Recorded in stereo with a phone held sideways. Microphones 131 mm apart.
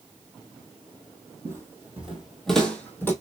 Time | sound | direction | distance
1.4 | footsteps | 25° right (ahead or behind) | 1.5 m